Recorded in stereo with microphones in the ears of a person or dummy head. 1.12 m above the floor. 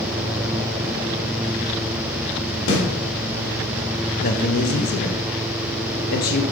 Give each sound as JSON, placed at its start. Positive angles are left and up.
{"t": 2.7, "sound": "a snare drum", "side_deg": 65, "distance_m": 2.5}
{"t": 4.2, "sound": "a man speaking", "side_deg": 50, "distance_m": 0.7}